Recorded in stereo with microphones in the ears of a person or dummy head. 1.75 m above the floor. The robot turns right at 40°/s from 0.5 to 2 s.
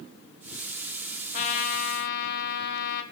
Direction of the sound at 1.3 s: 40° left (ahead or behind).